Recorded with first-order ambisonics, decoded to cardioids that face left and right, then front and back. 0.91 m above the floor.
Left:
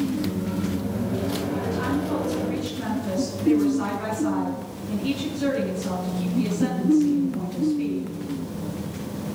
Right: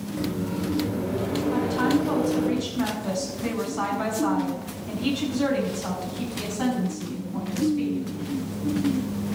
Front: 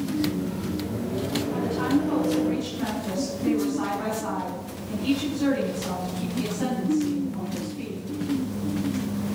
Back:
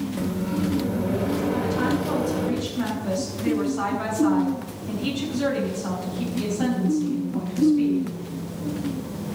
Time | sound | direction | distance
0.2 | a microwave | 155° right | 2.5 m
1.5 | a woman speaking | 110° right | 7 m